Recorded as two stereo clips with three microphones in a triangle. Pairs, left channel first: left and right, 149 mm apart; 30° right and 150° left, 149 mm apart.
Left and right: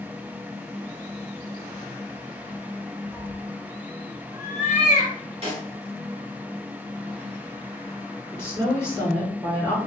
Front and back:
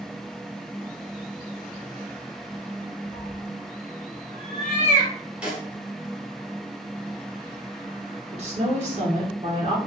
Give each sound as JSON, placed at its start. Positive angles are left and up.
{"t": 3.1, "sound": "a cat meowing", "azimuth_deg": 5, "distance_m": 0.6}
{"t": 5.4, "sound": "a snare drum", "azimuth_deg": -130, "distance_m": 1.5}
{"t": 8.3, "sound": "a woman speaking", "azimuth_deg": 155, "distance_m": 1.7}